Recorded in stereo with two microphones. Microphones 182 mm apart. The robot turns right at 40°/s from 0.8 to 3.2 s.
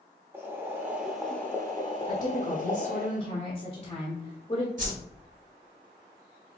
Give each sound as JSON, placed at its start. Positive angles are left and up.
{"t": 0.3, "sound": "boiling", "azimuth_deg": -15, "distance_m": 0.8}
{"t": 2.1, "sound": "a woman speaking", "azimuth_deg": 85, "distance_m": 1.2}
{"t": 4.8, "sound": "a whoosh", "side_deg": -45, "distance_m": 1.1}